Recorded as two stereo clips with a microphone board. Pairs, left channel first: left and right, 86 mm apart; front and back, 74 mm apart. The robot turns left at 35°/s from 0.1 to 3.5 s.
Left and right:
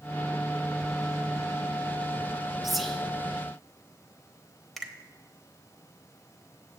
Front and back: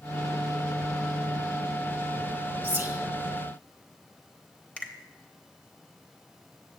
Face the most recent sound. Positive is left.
turn(degrees=10)